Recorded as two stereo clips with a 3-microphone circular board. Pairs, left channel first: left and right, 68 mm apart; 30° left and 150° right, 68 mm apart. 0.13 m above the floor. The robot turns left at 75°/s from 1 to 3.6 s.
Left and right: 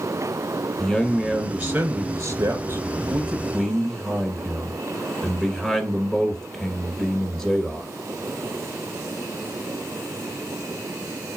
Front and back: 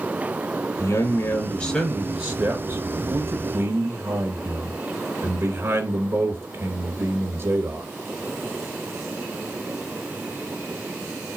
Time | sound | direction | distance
0.8 | a man speaking | 15° left | 1.6 m